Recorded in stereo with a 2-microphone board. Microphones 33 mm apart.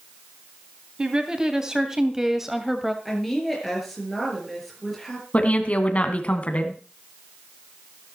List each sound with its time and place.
1.0 s a woman speaking: 25° right (ahead or behind), 2.5 m; by 3.0 s 5° right (ahead or behind), 1.8 m
3.0 s a woman speaking: centre (ahead or behind), 5.5 m
5.3 s a woman speaking: 45° left (ahead or behind), 2 m